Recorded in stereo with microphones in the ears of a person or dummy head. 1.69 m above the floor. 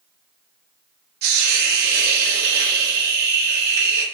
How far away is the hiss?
About 0.8 m.